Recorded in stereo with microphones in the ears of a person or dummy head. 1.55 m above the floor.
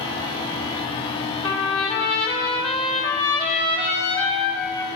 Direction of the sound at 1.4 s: 20° left (ahead or behind).